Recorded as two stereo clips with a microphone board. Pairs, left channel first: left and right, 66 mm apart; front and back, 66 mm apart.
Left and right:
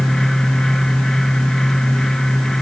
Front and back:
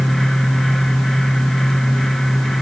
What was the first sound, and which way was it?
Only background noise.